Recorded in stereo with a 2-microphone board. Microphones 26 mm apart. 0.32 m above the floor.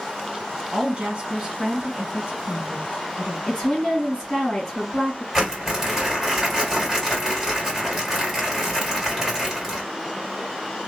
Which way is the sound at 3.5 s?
25° left (ahead or behind).